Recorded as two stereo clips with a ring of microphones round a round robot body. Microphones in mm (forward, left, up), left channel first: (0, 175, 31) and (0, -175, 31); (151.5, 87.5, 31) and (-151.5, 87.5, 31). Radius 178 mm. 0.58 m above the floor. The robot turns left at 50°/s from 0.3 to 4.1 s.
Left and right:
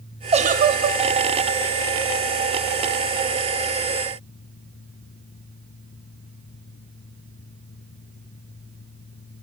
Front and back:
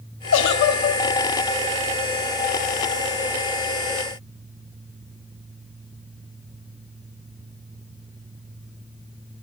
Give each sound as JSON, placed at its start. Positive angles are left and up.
{"t": 0.3, "sound": "a giggle", "azimuth_deg": -25, "distance_m": 0.7}